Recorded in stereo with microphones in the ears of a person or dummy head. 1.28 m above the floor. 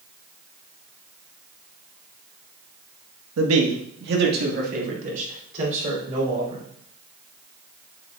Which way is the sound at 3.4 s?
85° right.